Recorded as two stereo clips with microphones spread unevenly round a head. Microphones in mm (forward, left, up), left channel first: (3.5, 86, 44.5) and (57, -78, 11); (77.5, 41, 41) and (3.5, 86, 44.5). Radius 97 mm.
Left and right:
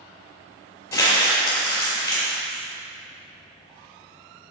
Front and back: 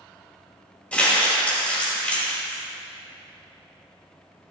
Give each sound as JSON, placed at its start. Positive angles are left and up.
{"t": 0.9, "sound": "crumpling", "azimuth_deg": 40, "distance_m": 2.5}